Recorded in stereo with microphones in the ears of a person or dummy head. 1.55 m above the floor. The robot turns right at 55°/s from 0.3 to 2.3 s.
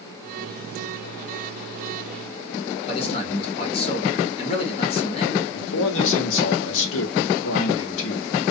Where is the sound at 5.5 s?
75° left (ahead or behind), 0.9 m.